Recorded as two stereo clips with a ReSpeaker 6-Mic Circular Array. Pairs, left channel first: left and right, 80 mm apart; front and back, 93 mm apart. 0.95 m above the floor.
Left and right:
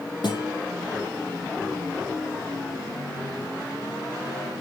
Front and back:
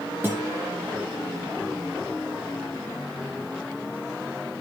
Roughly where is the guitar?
Left.